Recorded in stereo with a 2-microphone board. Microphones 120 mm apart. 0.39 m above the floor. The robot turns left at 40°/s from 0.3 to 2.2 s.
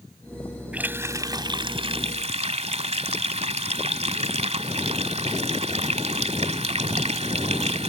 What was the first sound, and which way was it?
A running tap, 10° right.